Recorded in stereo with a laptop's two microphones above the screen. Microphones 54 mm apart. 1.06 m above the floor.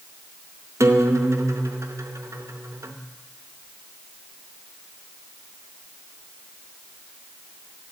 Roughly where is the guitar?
Right.